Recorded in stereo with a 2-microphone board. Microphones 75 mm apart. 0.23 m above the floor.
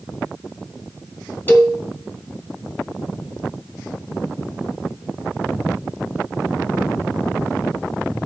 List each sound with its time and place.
1.5 s a cowbell: 25° left (ahead or behind), 1.8 m